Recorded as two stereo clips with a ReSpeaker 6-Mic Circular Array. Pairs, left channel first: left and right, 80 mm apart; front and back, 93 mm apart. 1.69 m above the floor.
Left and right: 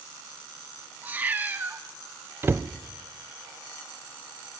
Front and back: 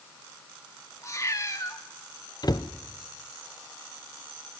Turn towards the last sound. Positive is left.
turn(degrees=-35)